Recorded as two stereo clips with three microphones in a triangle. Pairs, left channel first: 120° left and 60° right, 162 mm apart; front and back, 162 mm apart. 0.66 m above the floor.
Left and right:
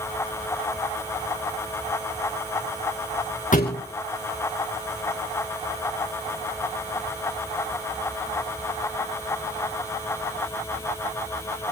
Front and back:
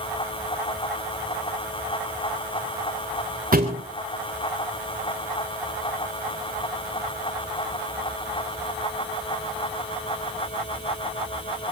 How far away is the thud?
About 3.5 m.